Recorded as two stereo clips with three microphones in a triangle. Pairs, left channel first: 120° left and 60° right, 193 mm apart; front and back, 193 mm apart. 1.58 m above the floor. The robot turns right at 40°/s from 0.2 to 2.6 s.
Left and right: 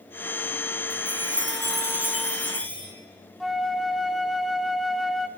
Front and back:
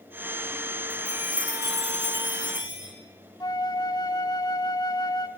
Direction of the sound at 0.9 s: 65° right.